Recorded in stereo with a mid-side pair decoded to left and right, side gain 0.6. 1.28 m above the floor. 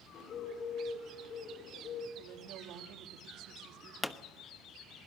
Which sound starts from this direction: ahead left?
A bird, at 0.1 s.